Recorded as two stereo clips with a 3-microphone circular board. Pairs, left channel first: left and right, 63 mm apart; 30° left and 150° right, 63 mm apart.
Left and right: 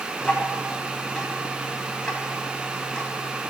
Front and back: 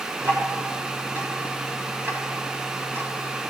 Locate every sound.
0.2 s ticking: 165° left, 2.5 m